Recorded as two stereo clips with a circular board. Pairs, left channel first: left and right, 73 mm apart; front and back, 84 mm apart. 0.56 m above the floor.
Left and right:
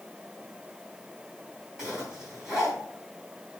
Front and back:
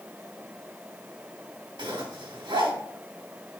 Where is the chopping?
I don't hear chopping.